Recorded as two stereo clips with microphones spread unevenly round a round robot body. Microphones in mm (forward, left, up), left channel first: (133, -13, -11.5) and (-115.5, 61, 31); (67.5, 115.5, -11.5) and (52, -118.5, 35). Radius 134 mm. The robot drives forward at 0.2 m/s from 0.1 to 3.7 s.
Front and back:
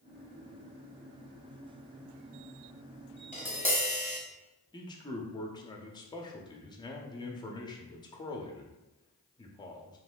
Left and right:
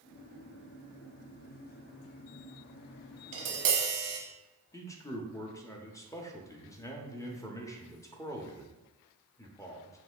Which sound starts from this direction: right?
Tapping, at 3.3 s.